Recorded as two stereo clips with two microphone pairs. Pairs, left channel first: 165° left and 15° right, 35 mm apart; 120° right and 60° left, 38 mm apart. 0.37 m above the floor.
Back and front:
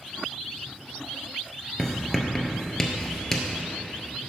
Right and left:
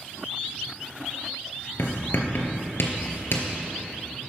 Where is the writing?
110° right, 1.5 m.